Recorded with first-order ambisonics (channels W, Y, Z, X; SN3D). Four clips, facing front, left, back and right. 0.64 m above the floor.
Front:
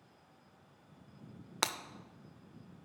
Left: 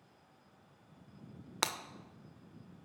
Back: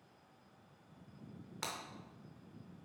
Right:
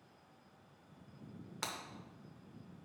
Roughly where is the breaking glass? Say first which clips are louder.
Left 7 dB, front 8 dB; ahead left.